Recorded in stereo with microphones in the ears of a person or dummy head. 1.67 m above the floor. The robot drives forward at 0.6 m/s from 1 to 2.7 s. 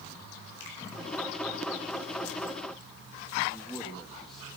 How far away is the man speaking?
About 2.5 m.